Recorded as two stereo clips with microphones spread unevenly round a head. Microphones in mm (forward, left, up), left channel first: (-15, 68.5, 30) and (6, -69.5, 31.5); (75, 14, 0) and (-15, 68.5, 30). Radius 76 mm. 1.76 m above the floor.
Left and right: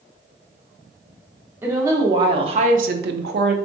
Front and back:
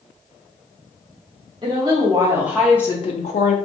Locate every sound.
1.6 s a woman speaking: 155° right, 1.1 m; by 3.6 s 55° right, 0.6 m